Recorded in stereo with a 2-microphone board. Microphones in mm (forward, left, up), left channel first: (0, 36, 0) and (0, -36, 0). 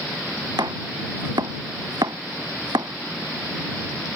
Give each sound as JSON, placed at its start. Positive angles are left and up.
{"t": 0.6, "sound": "chopping", "side_deg": -80}